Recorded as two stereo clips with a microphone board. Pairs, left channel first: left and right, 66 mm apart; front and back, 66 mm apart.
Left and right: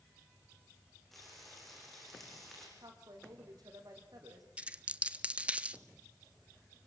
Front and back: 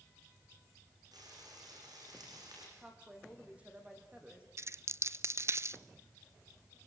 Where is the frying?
Straight behind, 7.5 m.